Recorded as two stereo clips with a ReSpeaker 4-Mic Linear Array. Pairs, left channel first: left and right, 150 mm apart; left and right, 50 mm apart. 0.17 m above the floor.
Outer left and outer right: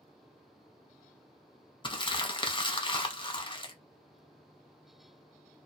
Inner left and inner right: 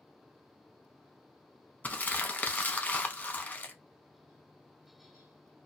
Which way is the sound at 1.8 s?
35° left (ahead or behind).